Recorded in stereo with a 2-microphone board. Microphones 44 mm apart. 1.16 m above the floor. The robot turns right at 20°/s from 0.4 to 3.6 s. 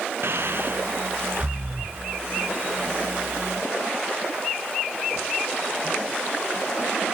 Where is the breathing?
60° right (ahead or behind), 2.5 m; by 2.0 s 30° right (ahead or behind), 2.5 m.